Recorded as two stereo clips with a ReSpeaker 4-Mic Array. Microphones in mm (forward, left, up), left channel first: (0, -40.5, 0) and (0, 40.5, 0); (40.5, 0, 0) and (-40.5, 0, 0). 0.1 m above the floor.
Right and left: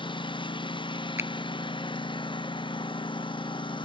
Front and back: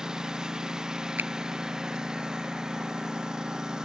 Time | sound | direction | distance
0.0 | a lawn mower | 100° right | ?
1.2 | a finger snap | 125° left | ?